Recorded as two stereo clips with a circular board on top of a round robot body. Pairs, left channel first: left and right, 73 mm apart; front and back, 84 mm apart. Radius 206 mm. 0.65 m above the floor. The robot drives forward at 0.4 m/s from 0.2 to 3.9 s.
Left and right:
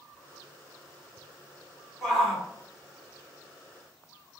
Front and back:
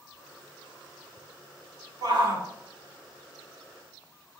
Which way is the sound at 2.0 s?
Straight behind.